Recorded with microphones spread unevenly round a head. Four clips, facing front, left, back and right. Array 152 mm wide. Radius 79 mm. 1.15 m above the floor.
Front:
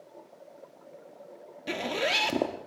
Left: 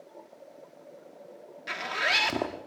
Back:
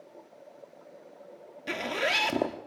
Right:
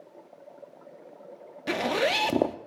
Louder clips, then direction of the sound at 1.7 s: Right 6 dB, front 1 dB; 80° right.